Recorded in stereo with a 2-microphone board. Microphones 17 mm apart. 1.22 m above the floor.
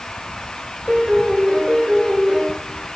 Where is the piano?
75° right (ahead or behind), 2.5 m.